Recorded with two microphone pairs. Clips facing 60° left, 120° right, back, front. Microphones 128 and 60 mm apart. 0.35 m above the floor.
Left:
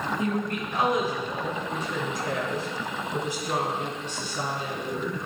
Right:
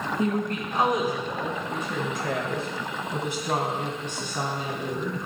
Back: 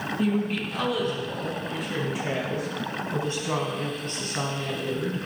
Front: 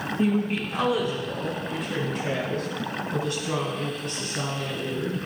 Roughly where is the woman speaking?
Right.